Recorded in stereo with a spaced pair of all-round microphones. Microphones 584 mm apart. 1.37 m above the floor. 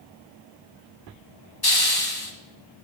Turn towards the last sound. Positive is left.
turn(degrees=40)  # may be behind; listen again after turning